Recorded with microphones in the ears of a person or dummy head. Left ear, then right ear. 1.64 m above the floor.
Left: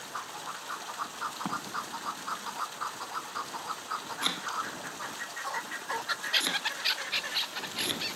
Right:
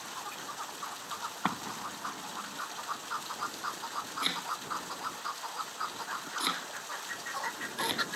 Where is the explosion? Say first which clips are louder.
Even; 65° right (ahead or behind).